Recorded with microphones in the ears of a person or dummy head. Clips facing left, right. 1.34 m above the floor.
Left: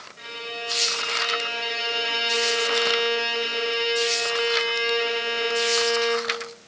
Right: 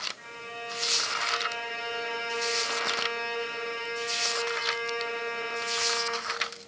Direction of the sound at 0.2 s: 55° left (ahead or behind).